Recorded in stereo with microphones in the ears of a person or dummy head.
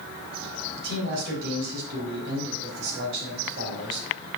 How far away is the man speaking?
About 4 m.